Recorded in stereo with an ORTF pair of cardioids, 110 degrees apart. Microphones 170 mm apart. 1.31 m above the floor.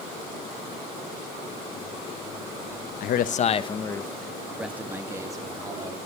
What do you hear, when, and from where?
3.0 s a man speaking: 65° left, 1.2 m; by 6.0 s 25° right, 3 m